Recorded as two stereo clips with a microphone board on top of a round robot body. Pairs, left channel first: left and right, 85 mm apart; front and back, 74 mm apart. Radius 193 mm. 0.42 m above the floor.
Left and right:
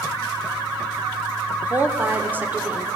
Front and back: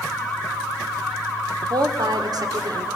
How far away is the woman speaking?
About 1.8 m.